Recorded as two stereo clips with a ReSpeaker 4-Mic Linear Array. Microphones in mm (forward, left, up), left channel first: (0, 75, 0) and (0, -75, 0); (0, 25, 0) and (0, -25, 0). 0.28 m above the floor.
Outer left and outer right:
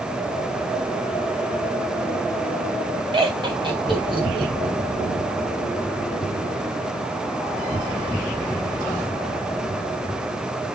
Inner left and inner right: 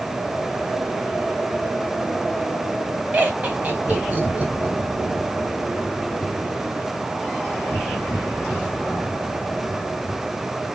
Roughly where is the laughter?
Right.